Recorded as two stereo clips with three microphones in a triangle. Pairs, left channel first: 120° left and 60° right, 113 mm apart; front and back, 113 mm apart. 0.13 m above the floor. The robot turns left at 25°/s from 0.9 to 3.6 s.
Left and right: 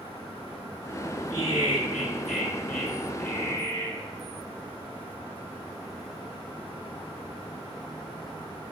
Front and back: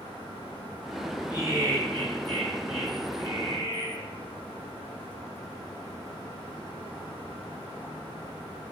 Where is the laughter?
115° right, 1.6 m; by 4.1 s 170° right, 1.6 m.